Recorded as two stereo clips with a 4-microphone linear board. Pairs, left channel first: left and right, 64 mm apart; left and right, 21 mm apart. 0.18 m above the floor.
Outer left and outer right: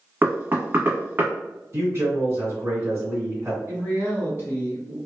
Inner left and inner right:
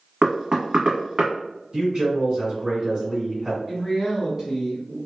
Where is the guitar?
No guitar in this recording.